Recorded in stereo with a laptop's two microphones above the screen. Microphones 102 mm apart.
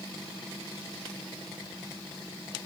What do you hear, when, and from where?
Only background noise.